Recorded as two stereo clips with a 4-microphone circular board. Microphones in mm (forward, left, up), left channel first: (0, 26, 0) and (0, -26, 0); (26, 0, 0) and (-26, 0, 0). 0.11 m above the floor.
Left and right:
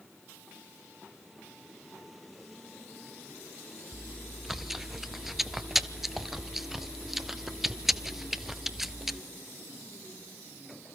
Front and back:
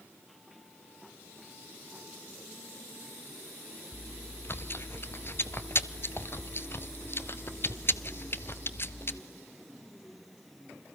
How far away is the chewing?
About 0.7 m.